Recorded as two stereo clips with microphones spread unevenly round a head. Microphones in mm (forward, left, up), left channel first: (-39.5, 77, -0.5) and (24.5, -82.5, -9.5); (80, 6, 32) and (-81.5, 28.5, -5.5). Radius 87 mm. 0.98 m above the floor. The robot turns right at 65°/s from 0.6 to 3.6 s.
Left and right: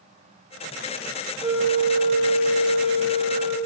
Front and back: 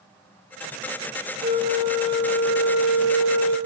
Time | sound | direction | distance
1.4 | a flute | 140° right | 6.5 m